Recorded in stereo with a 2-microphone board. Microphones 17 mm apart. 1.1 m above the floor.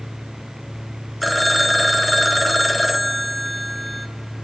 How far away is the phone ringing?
About 1.0 m.